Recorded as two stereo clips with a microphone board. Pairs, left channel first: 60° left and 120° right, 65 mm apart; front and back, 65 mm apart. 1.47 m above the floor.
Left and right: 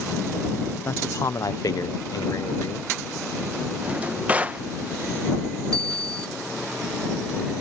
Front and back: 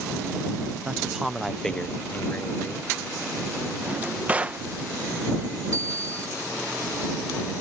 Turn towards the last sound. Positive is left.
turn(degrees=-135)